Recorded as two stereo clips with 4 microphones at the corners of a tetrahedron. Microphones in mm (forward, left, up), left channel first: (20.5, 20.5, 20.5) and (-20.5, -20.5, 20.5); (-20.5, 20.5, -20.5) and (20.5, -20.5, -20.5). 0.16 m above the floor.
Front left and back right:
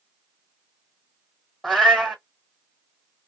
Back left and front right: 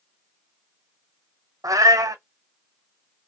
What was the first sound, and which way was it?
A cat meowing, 45° right.